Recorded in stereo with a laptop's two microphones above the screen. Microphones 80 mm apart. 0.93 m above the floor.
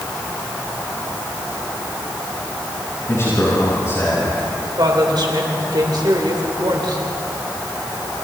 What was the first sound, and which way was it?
A man speaking, 35° left (ahead or behind).